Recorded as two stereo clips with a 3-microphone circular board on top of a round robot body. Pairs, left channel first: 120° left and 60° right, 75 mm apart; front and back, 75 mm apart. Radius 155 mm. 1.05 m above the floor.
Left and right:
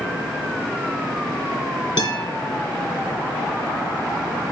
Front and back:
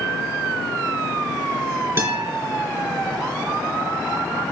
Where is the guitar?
125° left, 3 m.